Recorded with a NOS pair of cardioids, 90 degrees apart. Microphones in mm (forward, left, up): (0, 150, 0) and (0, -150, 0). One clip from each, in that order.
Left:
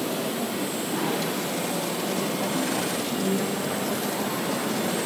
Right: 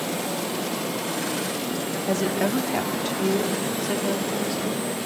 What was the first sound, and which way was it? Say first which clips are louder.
A woman speaking: right 3 dB; 60° right.